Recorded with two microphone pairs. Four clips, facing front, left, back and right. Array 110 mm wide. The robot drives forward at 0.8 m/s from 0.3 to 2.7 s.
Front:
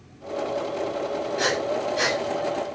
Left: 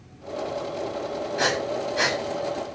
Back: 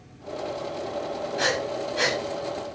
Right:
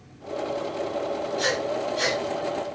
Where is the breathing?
100° left, 8 m; by 2.2 s 105° left, 8 m.